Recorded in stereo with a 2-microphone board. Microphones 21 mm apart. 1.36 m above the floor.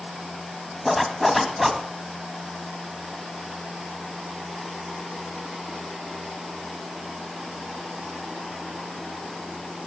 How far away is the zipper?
About 1.7 m.